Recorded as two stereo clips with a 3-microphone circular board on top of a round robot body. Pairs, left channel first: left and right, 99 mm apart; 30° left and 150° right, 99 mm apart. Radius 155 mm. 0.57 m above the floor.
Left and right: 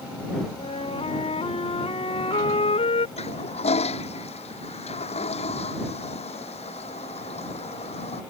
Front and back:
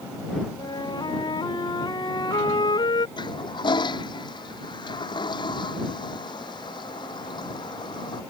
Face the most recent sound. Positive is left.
turn(degrees=75)